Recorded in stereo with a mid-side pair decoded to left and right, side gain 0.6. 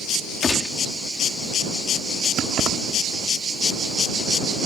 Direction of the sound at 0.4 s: 25° left.